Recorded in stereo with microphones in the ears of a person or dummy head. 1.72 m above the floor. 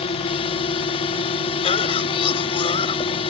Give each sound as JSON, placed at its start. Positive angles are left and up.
{"t": 0.0, "sound": "a drone", "side_deg": 25}
{"t": 1.6, "sound": "a cough", "side_deg": 25}